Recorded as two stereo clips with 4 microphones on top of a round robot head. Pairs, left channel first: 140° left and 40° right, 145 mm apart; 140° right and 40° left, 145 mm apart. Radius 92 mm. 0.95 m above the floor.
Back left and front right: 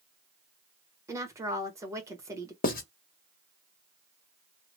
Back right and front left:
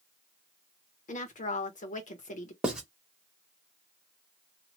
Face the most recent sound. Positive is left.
turn(degrees=125)